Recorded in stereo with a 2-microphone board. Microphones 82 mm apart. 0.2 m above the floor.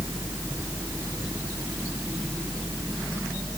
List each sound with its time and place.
Only background noise.